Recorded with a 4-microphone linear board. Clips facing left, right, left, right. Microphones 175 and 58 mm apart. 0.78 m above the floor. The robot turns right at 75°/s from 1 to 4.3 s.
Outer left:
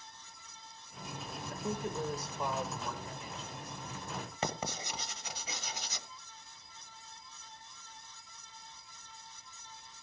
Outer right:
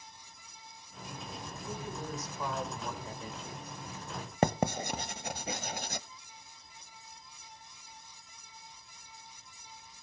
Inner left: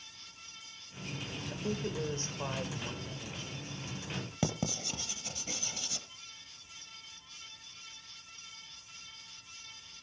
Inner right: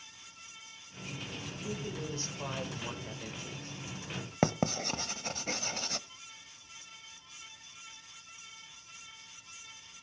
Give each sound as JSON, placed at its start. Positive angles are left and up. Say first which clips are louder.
{"t": 1.5, "sound": "a woman speaking", "louder": "outer left 6 dB, inner left 5 dB", "azimuth_deg": 95, "distance_m": 3.5}
{"t": 4.4, "sound": "writing", "louder": "outer right 10 dB, inner right 6 dB", "side_deg": -50, "distance_m": 0.9}